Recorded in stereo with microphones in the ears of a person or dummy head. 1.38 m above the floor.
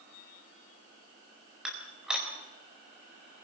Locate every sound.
1.6 s dishes clattering: 5° right (ahead or behind), 4 m